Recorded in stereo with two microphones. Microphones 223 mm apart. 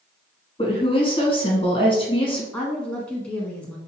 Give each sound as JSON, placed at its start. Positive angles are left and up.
{"t": 0.6, "sound": "a woman speaking", "side_deg": 25, "distance_m": 1.6}
{"t": 2.5, "sound": "a woman speaking", "side_deg": 5, "distance_m": 1.3}